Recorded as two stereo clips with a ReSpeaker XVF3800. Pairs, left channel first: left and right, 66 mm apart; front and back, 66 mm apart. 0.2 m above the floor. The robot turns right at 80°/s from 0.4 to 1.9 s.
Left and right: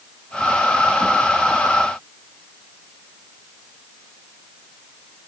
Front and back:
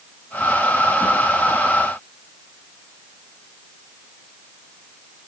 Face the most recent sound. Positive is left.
No sound to turn to.